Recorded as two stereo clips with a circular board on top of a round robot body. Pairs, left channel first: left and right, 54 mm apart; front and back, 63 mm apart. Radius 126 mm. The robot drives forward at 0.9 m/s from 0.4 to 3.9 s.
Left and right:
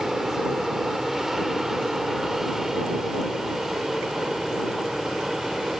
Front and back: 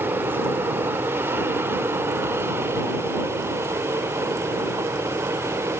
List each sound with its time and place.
0.0 s an aircraft: 170° right